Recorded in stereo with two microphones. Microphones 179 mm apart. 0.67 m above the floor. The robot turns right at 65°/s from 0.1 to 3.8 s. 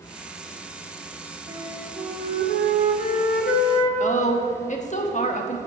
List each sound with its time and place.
1.5 s a flute: 30° right, 1.4 m; by 3.9 s 120° left, 1.4 m
4.0 s a woman speaking: 45° left (ahead or behind), 1.0 m